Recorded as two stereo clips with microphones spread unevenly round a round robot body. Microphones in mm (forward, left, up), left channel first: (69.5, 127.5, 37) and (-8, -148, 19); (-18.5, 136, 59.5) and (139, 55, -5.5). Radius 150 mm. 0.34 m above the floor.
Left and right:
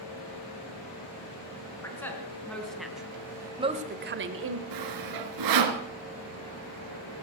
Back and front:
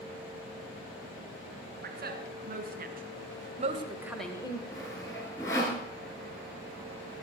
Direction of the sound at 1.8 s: 10° right.